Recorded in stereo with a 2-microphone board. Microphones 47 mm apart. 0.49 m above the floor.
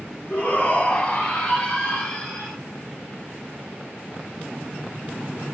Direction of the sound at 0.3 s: 35° left (ahead or behind).